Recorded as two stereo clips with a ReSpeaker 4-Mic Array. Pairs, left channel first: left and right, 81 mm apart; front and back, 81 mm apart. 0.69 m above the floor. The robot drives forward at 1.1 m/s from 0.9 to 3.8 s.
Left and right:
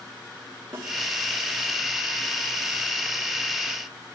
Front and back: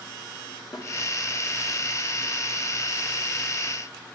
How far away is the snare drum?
About 3 m.